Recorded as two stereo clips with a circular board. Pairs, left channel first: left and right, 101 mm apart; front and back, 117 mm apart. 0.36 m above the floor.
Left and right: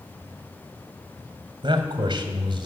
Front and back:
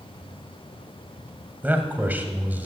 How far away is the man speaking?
About 2 m.